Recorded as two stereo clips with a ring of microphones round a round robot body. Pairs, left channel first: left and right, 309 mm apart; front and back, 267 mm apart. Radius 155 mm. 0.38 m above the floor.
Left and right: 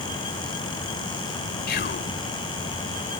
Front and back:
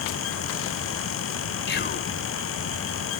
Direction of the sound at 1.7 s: 40° left.